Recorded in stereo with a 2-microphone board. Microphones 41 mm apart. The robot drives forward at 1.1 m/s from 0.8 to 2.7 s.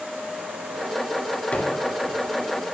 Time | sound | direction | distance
1.5 | a gunshot | 40° left (ahead or behind) | 2.0 m